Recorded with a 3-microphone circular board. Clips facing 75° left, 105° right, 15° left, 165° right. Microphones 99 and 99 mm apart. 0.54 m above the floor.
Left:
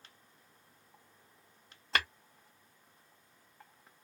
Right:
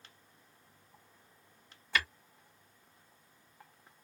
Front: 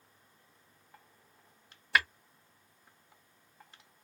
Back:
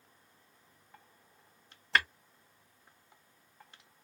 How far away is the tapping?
About 1.2 m.